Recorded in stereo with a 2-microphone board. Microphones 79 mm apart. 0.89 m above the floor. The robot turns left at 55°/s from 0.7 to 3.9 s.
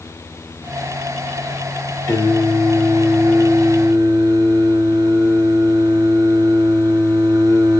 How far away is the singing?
About 2.5 m.